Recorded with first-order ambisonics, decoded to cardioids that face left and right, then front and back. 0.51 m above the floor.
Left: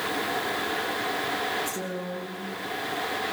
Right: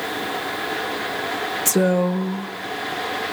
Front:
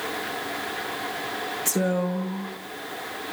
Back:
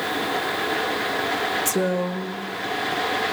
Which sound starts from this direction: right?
A woman speaking, at 1.6 s.